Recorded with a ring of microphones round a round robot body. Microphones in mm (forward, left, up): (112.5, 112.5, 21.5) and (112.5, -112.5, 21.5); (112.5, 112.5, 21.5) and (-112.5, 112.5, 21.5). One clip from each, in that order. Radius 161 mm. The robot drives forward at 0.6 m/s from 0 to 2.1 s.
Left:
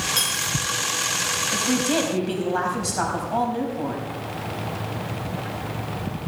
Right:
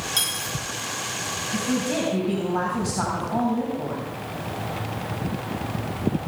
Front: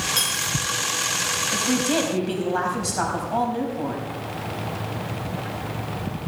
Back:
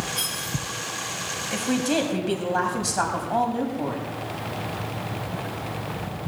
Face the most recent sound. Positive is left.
turn(degrees=115)